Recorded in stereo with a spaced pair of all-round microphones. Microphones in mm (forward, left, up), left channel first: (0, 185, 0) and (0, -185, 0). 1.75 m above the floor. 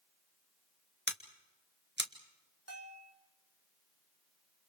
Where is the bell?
40° right (ahead or behind), 3 m.